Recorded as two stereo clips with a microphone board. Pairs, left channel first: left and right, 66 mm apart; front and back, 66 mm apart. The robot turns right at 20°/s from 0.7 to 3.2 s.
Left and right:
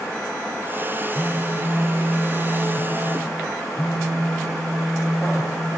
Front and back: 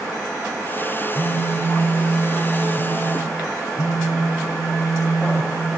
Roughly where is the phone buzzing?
Ahead right.